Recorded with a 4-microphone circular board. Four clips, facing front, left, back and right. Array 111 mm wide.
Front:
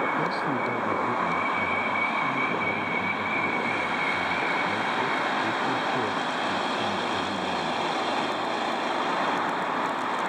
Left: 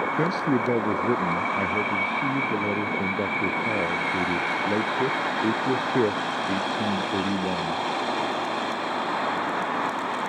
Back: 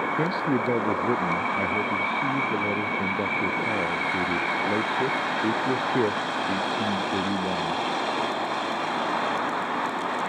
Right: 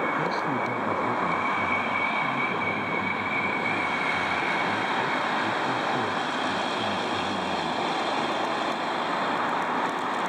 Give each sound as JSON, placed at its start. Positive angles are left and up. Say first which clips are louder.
{"t": 0.2, "sound": "a man speaking", "louder": "left 3 dB, back 2 dB", "azimuth_deg": 120}